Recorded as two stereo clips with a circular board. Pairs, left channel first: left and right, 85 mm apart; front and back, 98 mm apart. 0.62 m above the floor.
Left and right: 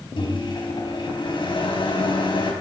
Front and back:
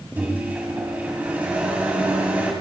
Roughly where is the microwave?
Left.